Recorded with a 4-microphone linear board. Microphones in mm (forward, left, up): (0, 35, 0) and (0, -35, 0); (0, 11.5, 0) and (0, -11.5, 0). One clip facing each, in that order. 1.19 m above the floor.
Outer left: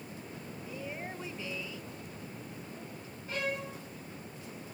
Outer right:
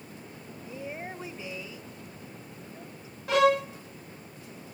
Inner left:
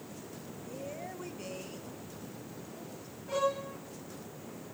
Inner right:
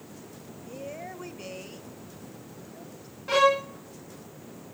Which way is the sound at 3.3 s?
85° right.